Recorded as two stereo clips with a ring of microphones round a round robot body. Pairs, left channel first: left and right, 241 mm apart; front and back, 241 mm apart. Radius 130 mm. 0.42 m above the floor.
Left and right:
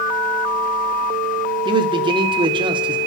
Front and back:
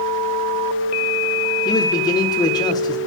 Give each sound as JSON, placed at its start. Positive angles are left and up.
{"t": 1.6, "sound": "a man speaking", "azimuth_deg": -50, "distance_m": 0.8}